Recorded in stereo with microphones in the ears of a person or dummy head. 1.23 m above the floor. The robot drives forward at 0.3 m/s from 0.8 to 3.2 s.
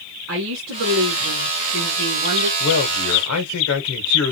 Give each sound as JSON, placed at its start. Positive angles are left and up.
{"t": 0.3, "sound": "a woman speaking", "side_deg": -85, "distance_m": 1.3}
{"t": 2.6, "sound": "a man speaking", "side_deg": 90, "distance_m": 1.0}